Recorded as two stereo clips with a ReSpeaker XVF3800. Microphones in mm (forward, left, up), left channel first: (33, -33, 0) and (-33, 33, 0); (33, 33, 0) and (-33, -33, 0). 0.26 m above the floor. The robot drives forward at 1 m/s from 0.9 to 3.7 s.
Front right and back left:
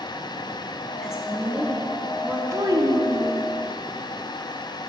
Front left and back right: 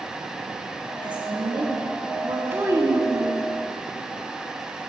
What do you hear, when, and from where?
1.0 s a woman speaking: 140° right, 2.5 m; by 2.4 s 155° right, 3.5 m
2.5 s a child speaking: 170° left, 1.0 m; by 3.5 s 175° left, 1.8 m